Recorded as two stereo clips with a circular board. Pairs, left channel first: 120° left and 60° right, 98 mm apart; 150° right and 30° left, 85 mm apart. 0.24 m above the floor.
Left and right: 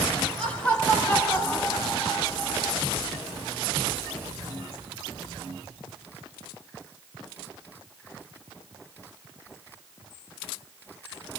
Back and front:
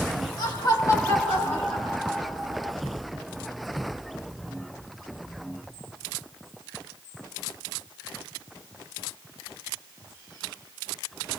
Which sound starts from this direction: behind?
Laughter, at 0.4 s.